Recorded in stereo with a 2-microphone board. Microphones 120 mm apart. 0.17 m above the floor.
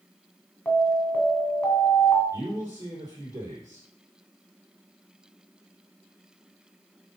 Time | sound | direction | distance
0.7 | an alarm | 15° left (ahead or behind) | 2 m
2.3 | a man speaking | 30° right (ahead or behind) | 4.5 m